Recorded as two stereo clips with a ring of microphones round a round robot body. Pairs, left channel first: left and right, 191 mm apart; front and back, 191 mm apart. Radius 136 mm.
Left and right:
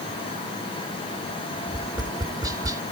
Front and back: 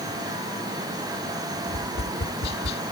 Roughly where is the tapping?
Ahead.